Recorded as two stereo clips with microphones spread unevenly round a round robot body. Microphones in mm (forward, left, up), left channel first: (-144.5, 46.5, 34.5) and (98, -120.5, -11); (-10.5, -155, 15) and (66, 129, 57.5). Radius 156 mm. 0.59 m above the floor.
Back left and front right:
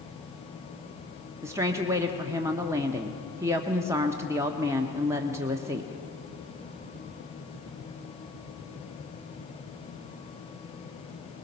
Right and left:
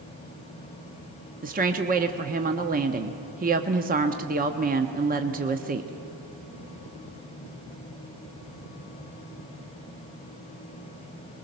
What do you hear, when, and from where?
1.4 s a woman speaking: 25° left, 1.0 m